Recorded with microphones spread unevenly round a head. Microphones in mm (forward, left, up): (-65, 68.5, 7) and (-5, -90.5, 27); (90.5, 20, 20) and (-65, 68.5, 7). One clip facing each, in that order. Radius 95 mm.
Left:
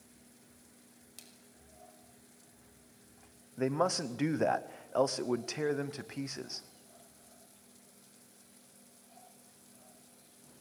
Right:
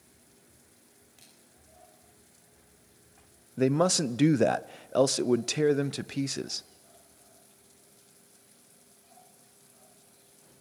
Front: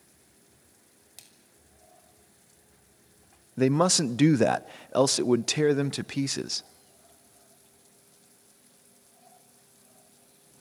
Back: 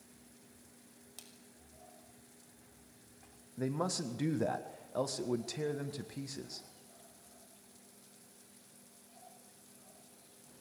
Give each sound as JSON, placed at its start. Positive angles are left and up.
{"t": 1.2, "sound": "a splash", "azimuth_deg": 60, "distance_m": 6.0}
{"t": 3.6, "sound": "a man speaking", "azimuth_deg": -10, "distance_m": 0.7}